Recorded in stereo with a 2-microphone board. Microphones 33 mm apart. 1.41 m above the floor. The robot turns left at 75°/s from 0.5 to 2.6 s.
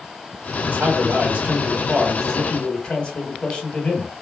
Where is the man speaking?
75° right, 1.4 m; by 4.2 s 145° left, 1.4 m.